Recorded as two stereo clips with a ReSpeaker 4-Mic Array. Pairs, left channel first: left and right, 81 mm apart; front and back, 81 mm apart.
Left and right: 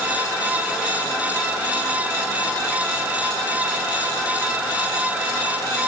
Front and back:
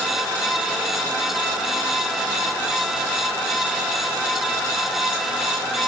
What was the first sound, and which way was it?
Only background noise.